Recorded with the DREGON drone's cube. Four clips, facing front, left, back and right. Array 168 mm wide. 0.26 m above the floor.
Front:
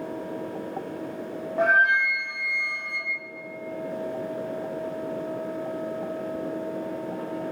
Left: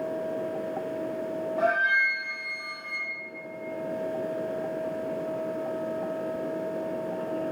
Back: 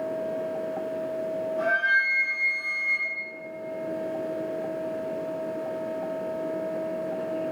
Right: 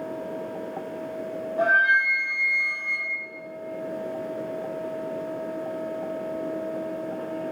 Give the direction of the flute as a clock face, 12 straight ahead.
12 o'clock.